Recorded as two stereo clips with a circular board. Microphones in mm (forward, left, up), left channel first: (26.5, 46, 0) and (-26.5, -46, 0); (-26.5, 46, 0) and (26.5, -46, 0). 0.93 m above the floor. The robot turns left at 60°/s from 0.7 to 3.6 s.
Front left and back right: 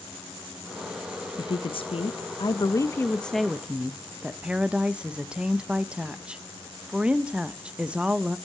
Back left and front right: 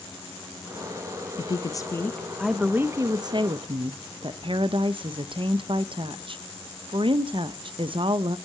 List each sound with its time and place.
1.4 s a woman speaking: 90° left, 0.5 m; by 8.4 s 40° right, 0.5 m